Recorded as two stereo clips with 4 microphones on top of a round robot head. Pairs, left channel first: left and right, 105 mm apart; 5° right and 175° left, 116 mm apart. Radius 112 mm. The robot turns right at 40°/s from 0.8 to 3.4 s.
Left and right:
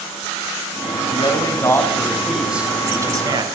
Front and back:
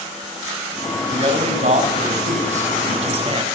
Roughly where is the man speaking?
Behind left.